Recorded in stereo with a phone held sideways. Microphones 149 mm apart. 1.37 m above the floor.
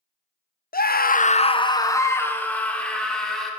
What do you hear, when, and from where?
0.7 s a scream: 75° left (ahead or behind), 0.6 m; by 3.5 s 5° left (ahead or behind), 2.5 m